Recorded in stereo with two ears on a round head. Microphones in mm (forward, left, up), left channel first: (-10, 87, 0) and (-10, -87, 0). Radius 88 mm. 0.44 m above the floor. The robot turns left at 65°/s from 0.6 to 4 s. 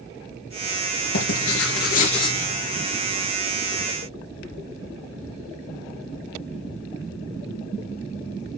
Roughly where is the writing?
Left.